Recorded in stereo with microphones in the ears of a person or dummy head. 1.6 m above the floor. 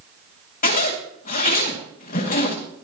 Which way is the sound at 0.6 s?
45° left (ahead or behind).